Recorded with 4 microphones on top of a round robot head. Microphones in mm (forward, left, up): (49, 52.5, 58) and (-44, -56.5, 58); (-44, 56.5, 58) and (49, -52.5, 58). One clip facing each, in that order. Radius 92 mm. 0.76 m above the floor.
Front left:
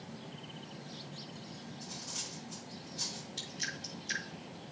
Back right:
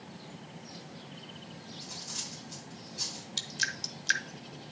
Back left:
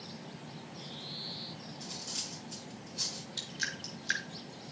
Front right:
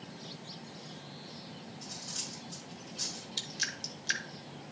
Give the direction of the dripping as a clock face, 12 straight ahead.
4 o'clock.